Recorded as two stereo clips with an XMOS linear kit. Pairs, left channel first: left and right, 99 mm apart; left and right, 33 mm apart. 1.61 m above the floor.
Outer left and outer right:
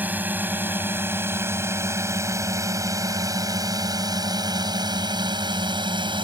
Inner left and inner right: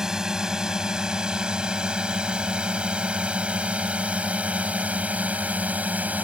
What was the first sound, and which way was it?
A drone, 15° right (ahead or behind).